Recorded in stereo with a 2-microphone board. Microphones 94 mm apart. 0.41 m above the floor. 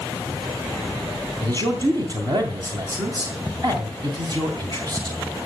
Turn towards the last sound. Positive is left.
turn(degrees=-50)  # may be behind; listen again after turning